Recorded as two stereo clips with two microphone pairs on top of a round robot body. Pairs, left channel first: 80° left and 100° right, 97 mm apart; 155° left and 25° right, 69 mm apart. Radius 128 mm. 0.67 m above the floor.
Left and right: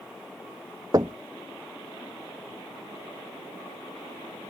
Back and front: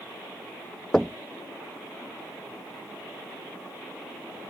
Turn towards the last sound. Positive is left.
turn(degrees=-130)